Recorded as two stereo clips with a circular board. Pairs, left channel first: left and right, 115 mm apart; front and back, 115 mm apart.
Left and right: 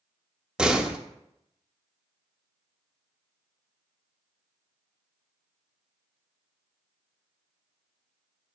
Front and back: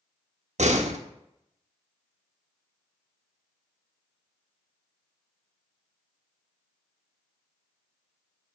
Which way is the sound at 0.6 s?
175° right.